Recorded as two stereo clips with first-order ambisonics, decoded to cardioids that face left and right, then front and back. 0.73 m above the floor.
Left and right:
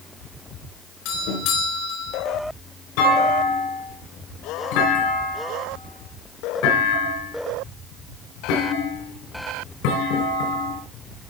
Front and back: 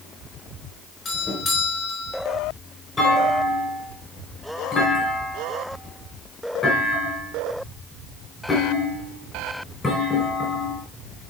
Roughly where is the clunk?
Left.